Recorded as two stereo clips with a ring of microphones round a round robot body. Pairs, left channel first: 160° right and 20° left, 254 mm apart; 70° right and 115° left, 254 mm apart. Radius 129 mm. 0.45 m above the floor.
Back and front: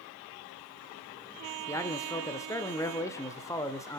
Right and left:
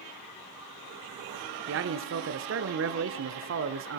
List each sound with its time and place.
1.7 s a man speaking: 125° left, 1.2 m